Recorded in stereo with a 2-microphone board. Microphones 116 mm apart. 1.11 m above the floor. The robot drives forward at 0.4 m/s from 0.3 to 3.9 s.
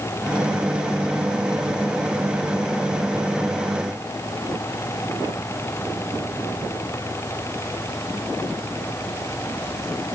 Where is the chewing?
I don't hear chewing.